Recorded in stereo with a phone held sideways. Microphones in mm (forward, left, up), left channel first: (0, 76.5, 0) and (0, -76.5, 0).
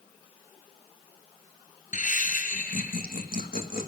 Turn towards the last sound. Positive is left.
turn(degrees=70)  # may be behind; listen again after turning